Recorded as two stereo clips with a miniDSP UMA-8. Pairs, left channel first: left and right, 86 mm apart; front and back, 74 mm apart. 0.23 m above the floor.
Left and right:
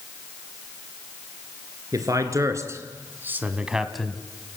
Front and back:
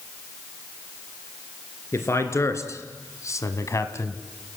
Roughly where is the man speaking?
Ahead right.